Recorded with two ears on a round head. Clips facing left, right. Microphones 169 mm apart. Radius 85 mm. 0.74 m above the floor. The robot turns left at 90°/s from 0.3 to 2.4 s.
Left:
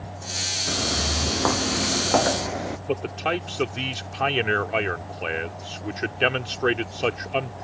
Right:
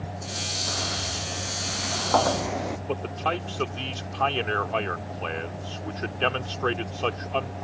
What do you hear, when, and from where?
0.7 s footsteps: 30° left (ahead or behind); by 2.8 s centre (ahead or behind)
2.9 s a man speaking: 25° left (ahead or behind)